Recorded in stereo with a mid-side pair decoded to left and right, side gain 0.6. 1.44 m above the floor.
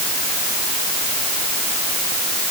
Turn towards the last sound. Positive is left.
No sound to turn to.